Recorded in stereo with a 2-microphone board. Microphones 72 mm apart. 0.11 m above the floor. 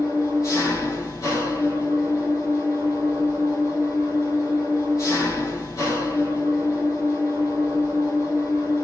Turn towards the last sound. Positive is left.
turn(degrees=55)  # may be behind; listen again after turning